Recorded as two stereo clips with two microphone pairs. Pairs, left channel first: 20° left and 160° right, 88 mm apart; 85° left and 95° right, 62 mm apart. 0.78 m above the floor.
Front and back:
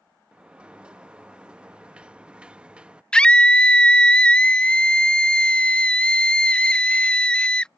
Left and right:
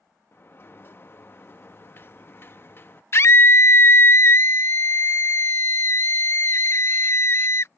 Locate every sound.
0.3 s a sliding door: 125° left
3.1 s a scream: 90° left